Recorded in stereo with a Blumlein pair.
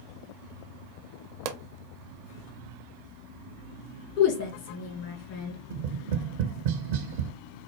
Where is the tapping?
50° right, 0.5 m.